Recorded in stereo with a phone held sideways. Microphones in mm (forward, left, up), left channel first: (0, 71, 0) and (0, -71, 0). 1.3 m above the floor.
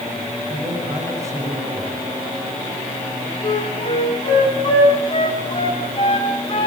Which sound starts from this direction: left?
A flute, at 3.4 s.